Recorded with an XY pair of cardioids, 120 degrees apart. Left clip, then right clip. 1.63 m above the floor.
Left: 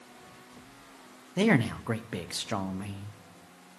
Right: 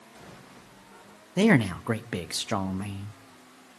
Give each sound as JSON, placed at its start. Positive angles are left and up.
{"t": 1.4, "sound": "a man speaking", "azimuth_deg": -25, "distance_m": 0.9}